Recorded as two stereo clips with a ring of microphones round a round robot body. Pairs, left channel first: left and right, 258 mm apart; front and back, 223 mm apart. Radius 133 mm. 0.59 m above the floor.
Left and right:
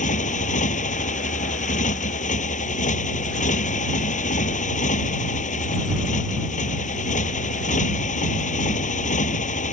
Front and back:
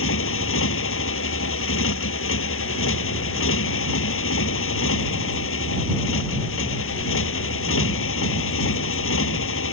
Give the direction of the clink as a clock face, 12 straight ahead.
I don't hear a clink.